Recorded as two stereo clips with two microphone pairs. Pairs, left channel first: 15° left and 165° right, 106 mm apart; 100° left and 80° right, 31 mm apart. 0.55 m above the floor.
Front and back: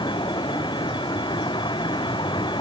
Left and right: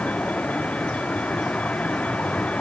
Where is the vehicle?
60° left.